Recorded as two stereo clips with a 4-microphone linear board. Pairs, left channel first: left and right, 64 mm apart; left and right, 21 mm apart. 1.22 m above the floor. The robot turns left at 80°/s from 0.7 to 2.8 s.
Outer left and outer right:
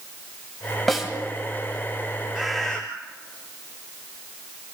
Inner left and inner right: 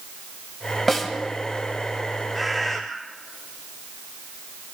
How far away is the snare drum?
About 2.5 m.